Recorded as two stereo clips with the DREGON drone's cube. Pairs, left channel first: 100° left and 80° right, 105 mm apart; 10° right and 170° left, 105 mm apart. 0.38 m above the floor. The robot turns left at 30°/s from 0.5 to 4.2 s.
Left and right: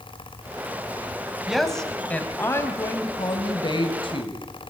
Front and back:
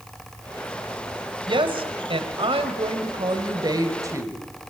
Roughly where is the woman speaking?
Behind.